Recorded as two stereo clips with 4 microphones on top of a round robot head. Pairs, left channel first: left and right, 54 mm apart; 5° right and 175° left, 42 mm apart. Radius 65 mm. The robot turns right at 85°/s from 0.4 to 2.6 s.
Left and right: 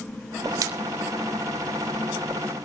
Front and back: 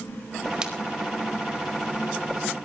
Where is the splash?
110° right, 1.6 m; by 0.7 s 95° right, 1.6 m.